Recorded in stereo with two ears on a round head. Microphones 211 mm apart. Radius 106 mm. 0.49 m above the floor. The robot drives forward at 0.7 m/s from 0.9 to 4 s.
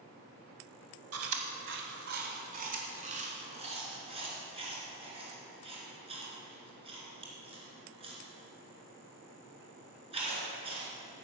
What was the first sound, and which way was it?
Chewing, 70° right (ahead or behind).